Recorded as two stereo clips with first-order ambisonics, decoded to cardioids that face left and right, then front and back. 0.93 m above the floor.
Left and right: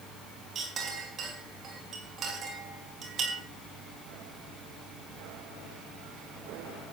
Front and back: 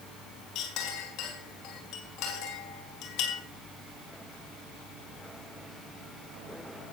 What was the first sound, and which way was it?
A clink, 30° right.